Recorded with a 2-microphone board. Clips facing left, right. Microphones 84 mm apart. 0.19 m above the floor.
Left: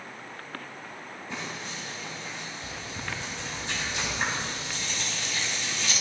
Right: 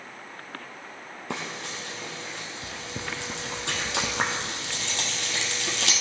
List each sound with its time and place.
1.3 s frying: 80° right, 1.7 m